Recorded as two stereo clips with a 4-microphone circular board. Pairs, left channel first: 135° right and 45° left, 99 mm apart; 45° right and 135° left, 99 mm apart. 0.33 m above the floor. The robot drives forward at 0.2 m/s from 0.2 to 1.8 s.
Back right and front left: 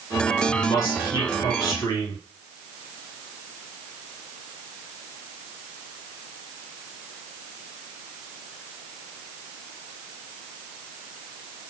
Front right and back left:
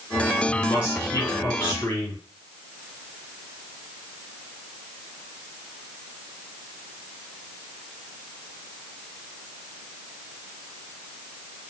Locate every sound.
0.5 s a man speaking: 100° right, 3 m; by 2.2 s 105° right, 3 m